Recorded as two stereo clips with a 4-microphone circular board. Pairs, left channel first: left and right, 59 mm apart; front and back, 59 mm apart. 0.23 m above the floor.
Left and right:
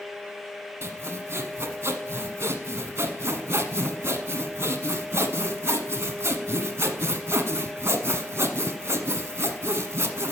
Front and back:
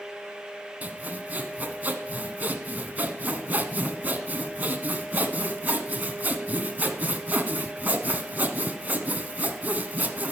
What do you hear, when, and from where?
0.8 s sawing: 125° right, 1.1 m